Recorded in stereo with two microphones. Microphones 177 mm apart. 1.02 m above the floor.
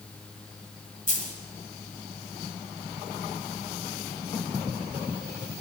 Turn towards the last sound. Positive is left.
turn(degrees=45)  # may be behind; listen again after turning